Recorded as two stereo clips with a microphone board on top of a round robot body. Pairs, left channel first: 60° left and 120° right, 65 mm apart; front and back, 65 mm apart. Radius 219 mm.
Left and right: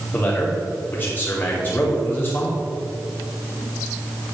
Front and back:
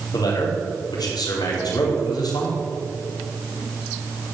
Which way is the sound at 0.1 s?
Straight ahead.